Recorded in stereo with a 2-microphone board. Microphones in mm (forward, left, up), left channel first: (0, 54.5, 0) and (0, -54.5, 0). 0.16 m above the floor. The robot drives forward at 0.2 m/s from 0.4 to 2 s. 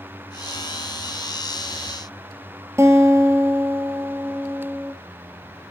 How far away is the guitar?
About 0.9 m.